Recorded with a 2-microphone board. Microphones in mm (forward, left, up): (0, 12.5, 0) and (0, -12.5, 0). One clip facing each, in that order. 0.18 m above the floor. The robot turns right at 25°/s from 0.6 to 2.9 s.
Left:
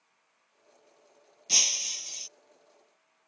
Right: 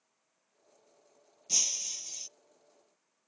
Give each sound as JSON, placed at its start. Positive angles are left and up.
{"t": 1.5, "sound": "breaking glass", "side_deg": 40}